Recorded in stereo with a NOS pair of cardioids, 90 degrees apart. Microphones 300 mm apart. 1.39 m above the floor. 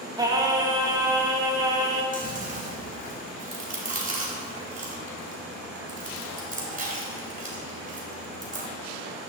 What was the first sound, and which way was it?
Singing, 10° right.